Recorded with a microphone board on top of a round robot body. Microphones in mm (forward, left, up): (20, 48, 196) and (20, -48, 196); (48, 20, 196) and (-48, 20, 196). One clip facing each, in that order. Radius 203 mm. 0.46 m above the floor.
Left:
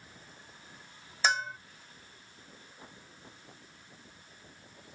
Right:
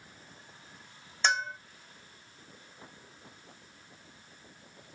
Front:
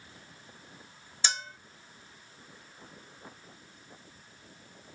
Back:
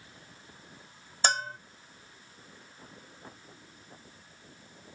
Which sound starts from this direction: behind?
A bell, at 1.2 s.